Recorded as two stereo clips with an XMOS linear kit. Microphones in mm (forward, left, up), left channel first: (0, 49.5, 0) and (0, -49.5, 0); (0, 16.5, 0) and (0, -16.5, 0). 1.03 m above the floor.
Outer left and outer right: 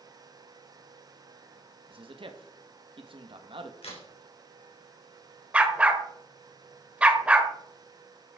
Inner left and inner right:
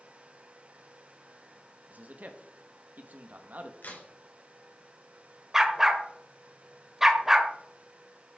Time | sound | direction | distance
1.9 | a man speaking | 60° right (ahead or behind) | 1.4 m
3.8 | a crack | 85° left | 4 m
5.5 | a dog barking | 10° right (ahead or behind) | 1.3 m